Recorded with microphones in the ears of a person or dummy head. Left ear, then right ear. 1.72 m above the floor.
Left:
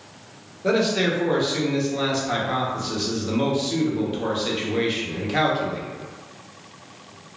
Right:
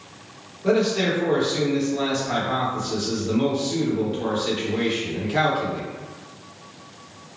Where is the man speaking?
15° left (ahead or behind), 0.9 m.